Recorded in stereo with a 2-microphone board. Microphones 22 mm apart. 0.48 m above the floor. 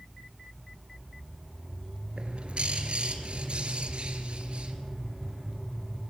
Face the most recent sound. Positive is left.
turn(degrees=-55)  # may be behind; listen again after turning